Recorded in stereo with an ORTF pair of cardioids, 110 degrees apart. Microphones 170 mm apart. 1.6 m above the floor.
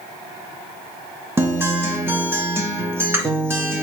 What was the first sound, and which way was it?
A guitar, 15° right.